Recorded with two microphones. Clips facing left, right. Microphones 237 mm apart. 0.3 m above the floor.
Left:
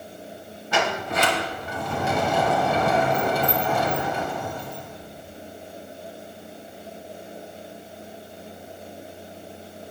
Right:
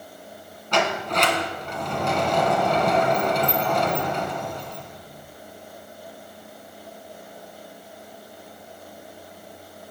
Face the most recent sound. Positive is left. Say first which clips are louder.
# right 1 dB
turn(degrees=5)  # may be behind; listen again after turning